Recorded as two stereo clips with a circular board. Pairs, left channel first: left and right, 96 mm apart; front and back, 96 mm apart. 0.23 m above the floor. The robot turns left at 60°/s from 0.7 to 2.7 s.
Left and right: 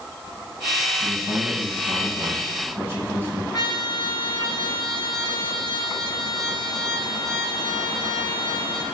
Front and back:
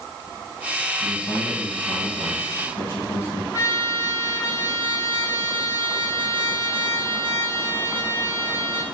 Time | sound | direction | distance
1.0 | a man speaking | 65° left | 2 m
3.5 | a trumpet | 45° left | 1.9 m